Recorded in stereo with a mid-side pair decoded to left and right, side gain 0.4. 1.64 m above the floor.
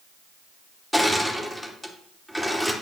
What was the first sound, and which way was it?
Crushing, 5° left.